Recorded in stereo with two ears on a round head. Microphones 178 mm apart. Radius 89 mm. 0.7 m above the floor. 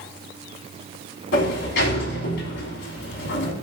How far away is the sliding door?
About 3 m.